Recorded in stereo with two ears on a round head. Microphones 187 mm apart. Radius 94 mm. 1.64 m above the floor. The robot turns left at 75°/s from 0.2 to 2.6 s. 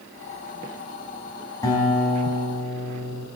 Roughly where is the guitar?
Behind.